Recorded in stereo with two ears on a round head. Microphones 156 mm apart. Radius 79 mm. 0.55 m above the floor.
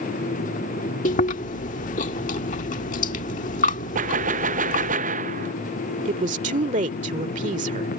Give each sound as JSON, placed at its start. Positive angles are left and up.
{"t": 1.1, "sound": "chewing", "side_deg": 45}
{"t": 4.0, "sound": "a gunshot", "side_deg": -45}
{"t": 6.0, "sound": "a woman speaking", "side_deg": -40}